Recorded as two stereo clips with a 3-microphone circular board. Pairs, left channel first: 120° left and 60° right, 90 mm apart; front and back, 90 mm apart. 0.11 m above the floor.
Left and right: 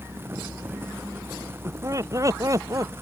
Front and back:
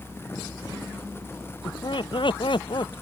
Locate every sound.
1.6 s laughter: 10° right